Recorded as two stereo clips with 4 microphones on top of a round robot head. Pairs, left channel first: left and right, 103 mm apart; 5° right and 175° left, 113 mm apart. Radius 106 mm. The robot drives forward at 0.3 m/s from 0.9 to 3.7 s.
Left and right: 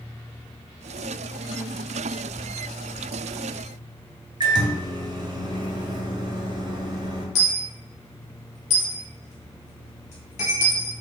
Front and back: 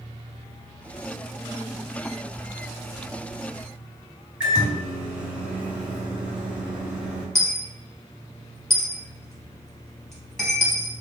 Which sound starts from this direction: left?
A dropped coin, at 7.3 s.